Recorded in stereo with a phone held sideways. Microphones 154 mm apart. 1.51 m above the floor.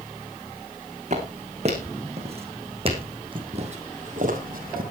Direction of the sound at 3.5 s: 40° right (ahead or behind).